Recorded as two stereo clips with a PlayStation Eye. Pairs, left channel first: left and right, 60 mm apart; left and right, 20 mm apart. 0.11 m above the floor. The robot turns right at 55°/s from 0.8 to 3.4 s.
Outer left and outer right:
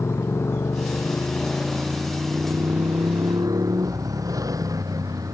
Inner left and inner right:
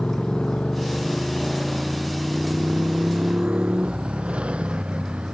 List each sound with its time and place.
0.0 s a motorcycle: 130° left; by 5.3 s 90° right